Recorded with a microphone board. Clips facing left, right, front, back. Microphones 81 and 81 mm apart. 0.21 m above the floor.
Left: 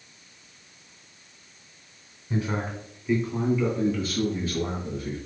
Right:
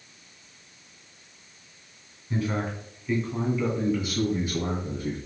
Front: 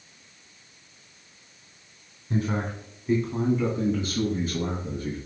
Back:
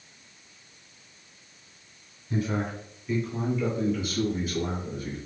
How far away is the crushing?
I don't hear crushing.